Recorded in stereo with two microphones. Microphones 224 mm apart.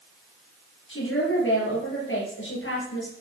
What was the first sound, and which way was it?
A woman speaking, 65° left (ahead or behind).